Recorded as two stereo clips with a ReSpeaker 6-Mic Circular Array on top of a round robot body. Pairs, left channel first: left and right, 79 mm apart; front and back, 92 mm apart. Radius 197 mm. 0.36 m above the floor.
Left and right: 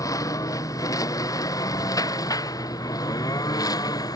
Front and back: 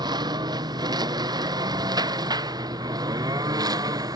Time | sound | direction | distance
0.0 | a lawn mower | 135° left | ?